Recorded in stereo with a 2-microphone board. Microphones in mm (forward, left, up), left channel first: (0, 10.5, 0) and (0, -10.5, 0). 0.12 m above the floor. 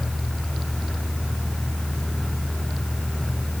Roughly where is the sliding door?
I don't hear a sliding door.